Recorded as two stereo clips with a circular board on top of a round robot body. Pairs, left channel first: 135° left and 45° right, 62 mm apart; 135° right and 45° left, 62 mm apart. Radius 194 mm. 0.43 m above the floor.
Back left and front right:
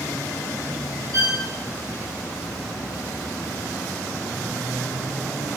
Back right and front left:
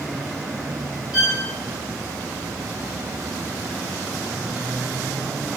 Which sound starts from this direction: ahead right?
A violin, at 1.1 s.